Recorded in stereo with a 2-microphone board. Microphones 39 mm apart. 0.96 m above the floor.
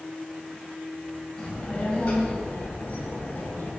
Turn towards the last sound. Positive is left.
turn(degrees=45)  # may be behind; listen again after turning